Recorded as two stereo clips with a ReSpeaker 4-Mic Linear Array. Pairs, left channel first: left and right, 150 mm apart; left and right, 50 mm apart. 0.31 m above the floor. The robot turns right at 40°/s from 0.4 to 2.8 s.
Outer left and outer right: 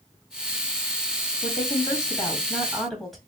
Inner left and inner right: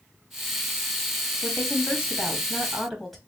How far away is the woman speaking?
About 1.9 m.